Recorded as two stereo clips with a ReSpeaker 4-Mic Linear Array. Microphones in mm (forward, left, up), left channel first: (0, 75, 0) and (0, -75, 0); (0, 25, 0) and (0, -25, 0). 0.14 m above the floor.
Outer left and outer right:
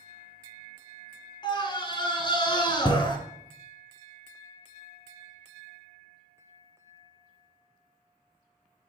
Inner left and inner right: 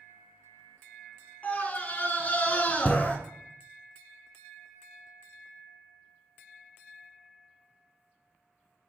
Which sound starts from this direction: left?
A scream, at 1.4 s.